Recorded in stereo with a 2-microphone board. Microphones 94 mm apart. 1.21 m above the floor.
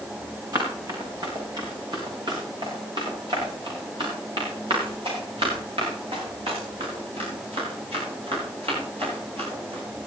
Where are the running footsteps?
40° right (ahead or behind), 6.5 m; by 9.8 s 85° right, 13.5 m.